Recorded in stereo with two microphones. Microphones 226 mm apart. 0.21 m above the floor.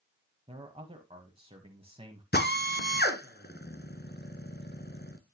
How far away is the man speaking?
About 1.5 m.